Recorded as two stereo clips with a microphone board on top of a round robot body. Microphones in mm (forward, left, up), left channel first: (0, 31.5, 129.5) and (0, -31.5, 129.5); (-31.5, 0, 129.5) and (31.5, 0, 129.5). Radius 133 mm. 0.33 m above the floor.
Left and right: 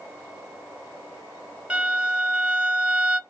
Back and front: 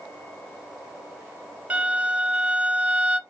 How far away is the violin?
About 1.4 m.